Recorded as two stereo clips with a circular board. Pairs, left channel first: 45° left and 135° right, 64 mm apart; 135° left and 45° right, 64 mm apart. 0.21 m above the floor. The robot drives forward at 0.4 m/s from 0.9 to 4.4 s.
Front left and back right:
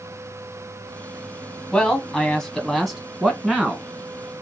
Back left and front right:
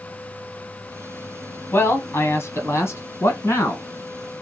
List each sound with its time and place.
1.7 s a man speaking: 115° left, 1.4 m; by 3.8 s 150° left, 1.9 m